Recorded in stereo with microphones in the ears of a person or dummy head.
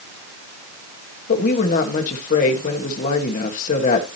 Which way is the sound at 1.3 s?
45° left (ahead or behind).